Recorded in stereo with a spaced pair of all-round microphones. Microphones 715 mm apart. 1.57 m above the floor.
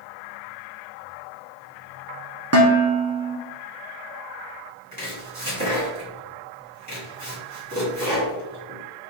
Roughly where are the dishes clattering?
Right.